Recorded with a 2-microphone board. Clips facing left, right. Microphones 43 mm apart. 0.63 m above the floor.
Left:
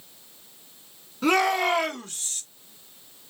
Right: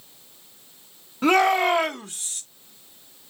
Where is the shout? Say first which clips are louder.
Right 3 dB; 30° right (ahead or behind), 1.4 m; by 2.4 s 10° right (ahead or behind), 1.3 m.